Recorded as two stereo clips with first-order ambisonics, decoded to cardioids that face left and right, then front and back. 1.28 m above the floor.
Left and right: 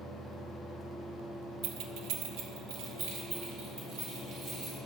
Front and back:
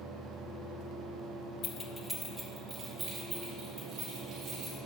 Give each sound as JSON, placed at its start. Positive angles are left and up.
{"t": 1.6, "sound": "keys jangling", "azimuth_deg": -50, "distance_m": 0.6}